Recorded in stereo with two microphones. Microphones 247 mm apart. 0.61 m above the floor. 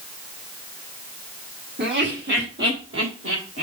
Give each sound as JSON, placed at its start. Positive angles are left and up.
{"t": 1.8, "sound": "laughter", "side_deg": -45, "distance_m": 1.9}